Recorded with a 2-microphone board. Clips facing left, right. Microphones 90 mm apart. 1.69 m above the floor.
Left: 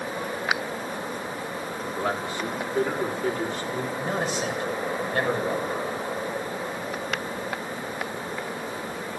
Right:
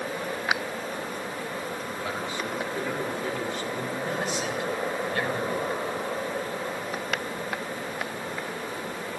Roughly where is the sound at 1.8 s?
Left.